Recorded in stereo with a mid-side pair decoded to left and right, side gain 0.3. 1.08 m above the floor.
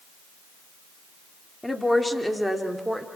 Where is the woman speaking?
15° left, 3.5 m; by 3.1 s 10° right, 4.5 m.